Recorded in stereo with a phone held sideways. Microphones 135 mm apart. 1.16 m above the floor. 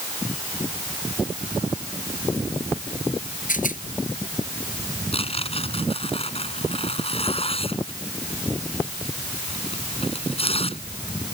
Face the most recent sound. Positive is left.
turn(degrees=45)  # may be behind; listen again after turning